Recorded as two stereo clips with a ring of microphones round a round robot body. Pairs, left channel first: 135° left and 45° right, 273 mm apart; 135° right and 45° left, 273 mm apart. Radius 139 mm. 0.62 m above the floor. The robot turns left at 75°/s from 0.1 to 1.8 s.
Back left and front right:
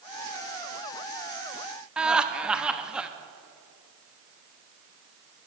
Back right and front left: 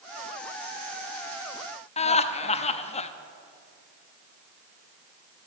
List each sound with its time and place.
2.0 s laughter: 125° right, 0.6 m